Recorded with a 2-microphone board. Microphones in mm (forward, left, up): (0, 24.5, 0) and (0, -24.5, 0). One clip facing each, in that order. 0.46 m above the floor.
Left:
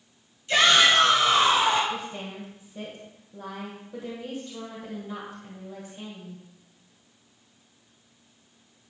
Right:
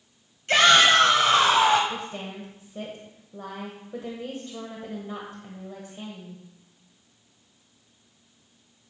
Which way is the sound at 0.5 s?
60° right (ahead or behind).